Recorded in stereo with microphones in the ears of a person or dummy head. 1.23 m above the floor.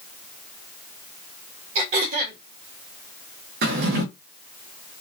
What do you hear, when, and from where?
1.8 s throat clearing: 45° right (ahead or behind), 1.3 m
3.6 s a drawer: 55° right (ahead or behind), 0.8 m